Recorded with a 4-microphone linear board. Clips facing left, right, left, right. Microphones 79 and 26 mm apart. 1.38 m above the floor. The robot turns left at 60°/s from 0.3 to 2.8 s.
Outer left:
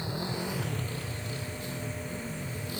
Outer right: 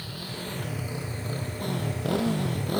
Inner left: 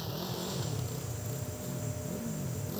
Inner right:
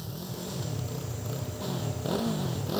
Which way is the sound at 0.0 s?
20° left.